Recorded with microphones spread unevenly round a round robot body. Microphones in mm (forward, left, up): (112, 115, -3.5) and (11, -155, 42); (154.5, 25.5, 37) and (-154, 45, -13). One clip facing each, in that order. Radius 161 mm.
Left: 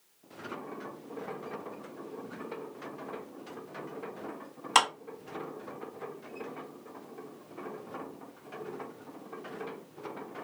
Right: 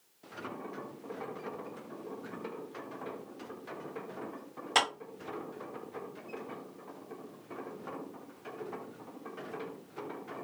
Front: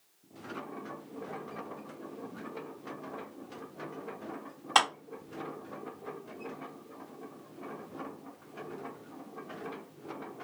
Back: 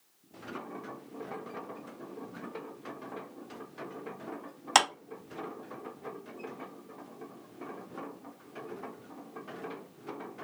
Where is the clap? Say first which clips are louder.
Left 2 dB, back 2 dB; 140° left, 2 m.